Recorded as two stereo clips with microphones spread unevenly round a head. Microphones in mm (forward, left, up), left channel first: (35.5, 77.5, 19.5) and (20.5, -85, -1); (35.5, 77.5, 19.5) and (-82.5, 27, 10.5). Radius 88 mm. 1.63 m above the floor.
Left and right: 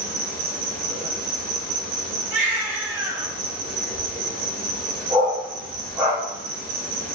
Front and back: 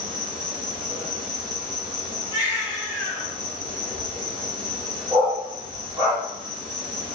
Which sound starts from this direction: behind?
A dog barking, at 5.1 s.